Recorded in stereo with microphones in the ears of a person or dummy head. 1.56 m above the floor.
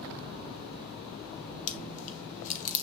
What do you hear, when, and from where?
1.7 s chewing: 45° left (ahead or behind), 1.3 m